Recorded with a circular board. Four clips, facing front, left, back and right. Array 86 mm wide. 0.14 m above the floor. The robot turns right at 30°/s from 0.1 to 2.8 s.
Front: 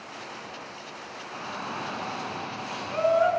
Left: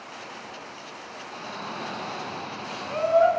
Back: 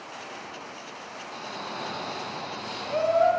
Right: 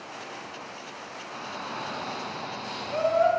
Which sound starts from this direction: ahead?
A shout, at 1.3 s.